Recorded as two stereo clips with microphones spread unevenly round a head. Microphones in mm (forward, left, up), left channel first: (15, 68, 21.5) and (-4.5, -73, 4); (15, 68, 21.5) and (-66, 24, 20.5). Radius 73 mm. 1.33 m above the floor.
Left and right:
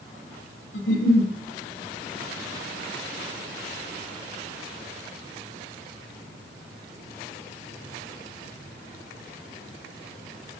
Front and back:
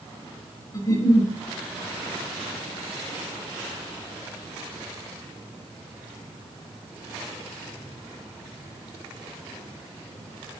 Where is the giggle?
80° left, 3 m.